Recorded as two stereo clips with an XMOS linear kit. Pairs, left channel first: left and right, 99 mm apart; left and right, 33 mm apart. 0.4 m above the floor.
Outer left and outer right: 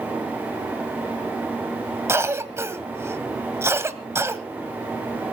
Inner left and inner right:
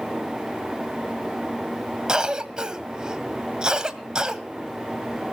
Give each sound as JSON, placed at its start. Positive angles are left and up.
{"t": 2.1, "sound": "a cough", "side_deg": -25, "distance_m": 1.8}